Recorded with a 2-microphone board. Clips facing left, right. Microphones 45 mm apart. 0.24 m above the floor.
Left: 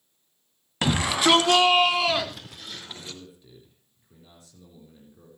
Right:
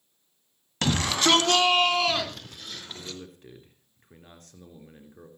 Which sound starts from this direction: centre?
A shout, at 0.8 s.